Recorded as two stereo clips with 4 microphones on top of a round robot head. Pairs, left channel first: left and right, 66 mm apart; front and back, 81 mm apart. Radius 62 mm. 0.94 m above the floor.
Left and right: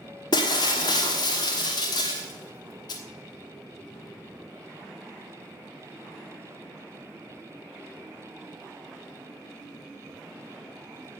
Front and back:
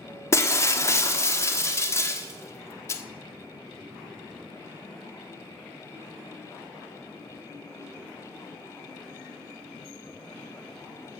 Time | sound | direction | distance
0.3 | breaking glass | 55° left | 1.3 m